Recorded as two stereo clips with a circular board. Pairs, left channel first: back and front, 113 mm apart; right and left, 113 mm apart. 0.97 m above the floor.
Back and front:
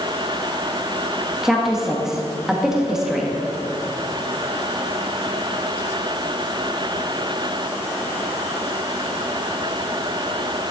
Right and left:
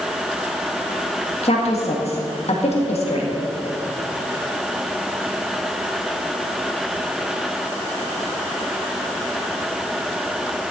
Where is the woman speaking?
85° right, 1.7 m.